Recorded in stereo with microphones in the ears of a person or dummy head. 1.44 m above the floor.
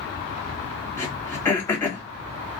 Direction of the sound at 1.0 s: 20° left (ahead or behind).